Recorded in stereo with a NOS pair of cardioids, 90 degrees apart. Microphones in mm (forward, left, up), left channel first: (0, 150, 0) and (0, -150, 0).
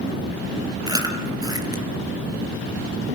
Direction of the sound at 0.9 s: 15° right.